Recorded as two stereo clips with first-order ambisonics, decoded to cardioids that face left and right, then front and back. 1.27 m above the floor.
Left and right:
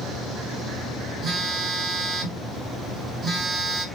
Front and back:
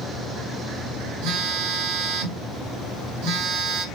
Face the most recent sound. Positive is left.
turn(degrees=-165)